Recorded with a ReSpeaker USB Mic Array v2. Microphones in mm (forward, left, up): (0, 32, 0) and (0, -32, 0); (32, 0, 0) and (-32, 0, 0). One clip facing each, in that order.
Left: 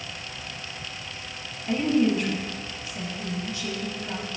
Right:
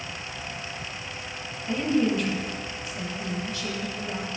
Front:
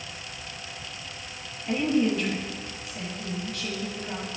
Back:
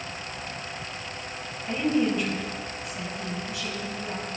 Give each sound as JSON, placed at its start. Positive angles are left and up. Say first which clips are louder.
{"t": 1.7, "sound": "a woman speaking", "louder": "left 2 dB, front 1 dB", "azimuth_deg": 110, "distance_m": 1.1}